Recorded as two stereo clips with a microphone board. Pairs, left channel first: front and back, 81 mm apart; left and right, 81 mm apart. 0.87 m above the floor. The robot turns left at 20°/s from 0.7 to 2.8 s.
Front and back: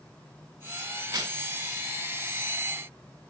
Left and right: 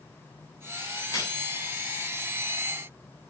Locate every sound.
1.0 s a crack: 145° left, 5.5 m; by 1.3 s 140° left, 5.5 m